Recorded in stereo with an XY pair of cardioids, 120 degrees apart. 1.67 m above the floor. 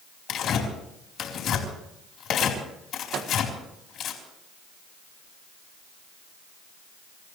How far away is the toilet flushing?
I don't hear a toilet flushing.